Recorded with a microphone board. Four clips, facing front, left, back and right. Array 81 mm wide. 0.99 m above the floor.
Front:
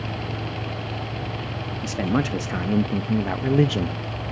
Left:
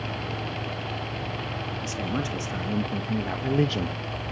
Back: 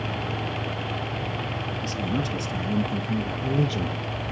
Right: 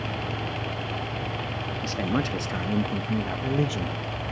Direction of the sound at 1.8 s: 25° right.